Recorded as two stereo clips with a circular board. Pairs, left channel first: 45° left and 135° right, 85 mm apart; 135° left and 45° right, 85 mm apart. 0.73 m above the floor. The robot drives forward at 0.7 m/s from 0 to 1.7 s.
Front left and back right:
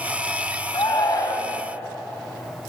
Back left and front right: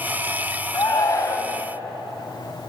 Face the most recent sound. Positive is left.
turn(degrees=95)